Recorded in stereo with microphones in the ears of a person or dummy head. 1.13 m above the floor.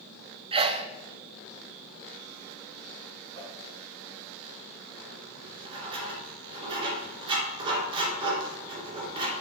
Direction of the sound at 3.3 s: 70° right (ahead or behind).